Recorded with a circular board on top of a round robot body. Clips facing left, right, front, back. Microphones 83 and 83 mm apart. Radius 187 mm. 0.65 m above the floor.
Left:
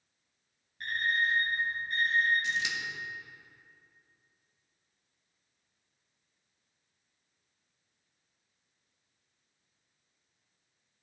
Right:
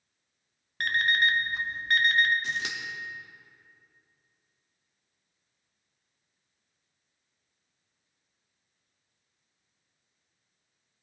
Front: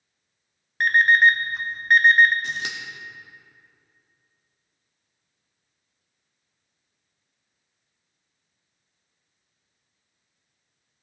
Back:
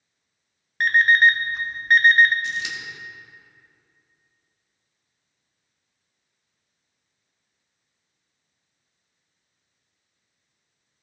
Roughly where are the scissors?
Ahead right.